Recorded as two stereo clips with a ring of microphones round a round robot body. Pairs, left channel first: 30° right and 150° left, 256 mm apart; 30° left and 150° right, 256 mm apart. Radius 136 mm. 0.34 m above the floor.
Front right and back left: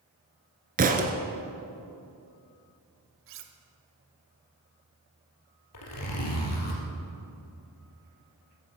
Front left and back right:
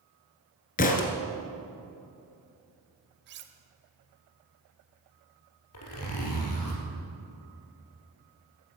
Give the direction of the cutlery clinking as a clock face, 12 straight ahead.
6 o'clock.